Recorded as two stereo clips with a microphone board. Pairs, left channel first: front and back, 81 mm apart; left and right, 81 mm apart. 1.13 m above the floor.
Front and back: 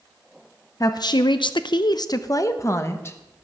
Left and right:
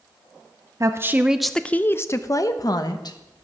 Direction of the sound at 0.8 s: 40° right.